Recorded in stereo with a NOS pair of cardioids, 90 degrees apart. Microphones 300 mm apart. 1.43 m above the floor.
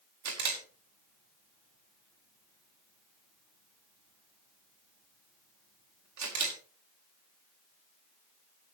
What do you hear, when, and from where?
0.2 s a camera shutter: 65° right, 5.5 m